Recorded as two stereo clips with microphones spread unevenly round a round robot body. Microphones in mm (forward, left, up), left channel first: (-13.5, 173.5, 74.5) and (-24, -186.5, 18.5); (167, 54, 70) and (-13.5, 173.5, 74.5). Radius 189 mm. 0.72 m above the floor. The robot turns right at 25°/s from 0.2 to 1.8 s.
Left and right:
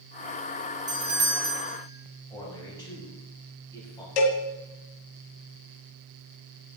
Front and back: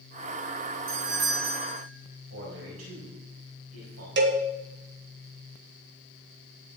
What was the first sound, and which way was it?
A doorbell, 165° right.